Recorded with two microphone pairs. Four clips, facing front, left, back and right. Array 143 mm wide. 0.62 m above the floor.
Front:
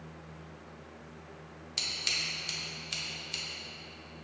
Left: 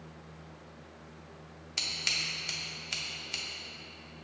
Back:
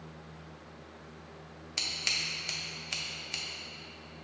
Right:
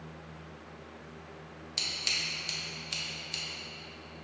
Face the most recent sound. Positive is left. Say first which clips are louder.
# left 1 dB, back 1 dB
turn(degrees=150)